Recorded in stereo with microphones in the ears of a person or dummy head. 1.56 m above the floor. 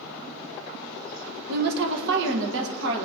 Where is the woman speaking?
55° right (ahead or behind), 1.2 m; by 3.1 s 70° right (ahead or behind), 2.0 m.